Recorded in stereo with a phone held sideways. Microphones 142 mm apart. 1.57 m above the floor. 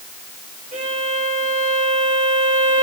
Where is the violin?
60° right (ahead or behind), 5 m.